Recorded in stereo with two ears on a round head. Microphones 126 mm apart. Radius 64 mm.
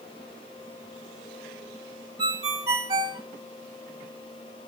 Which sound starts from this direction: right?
A ringtone, at 2.2 s.